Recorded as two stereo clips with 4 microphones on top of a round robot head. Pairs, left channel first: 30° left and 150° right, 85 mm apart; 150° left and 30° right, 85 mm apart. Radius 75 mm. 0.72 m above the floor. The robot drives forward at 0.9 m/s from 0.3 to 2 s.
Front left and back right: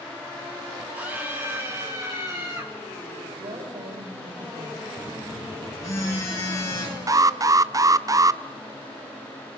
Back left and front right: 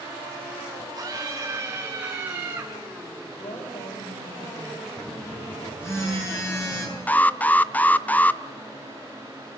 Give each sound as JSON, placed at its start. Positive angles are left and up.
{"t": 0.9, "sound": "a scream", "azimuth_deg": -80, "distance_m": 2.5}
{"t": 3.4, "sound": "a woman speaking", "azimuth_deg": -175, "distance_m": 4.0}
{"t": 5.0, "sound": "a phone buzzing", "azimuth_deg": 85, "distance_m": 6.0}
{"t": 7.1, "sound": "an alarm", "azimuth_deg": -150, "distance_m": 0.7}